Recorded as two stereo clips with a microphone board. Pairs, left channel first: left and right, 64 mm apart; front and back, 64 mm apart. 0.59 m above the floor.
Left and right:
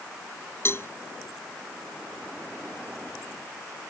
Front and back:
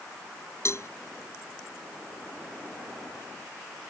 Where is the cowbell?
40° left.